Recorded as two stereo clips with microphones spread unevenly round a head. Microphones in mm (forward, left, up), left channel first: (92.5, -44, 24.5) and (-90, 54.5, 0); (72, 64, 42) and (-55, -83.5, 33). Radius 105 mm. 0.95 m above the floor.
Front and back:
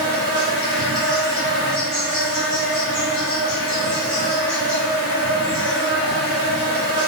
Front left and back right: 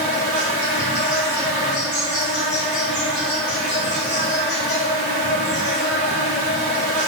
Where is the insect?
65° left, 1.7 m.